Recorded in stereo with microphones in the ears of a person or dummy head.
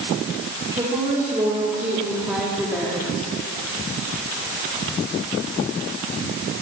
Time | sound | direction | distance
0.7 | a woman speaking | 20° right (ahead or behind) | 3.5 m